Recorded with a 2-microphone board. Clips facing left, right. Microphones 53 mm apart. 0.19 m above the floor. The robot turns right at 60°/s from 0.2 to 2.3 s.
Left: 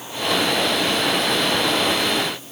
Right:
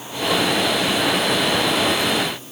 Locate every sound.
Only background noise.